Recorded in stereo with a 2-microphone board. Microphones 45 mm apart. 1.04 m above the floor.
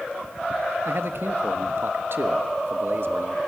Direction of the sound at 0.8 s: 60° right (ahead or behind).